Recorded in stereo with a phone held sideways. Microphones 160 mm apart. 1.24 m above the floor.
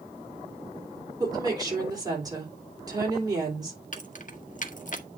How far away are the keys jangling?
About 0.9 m.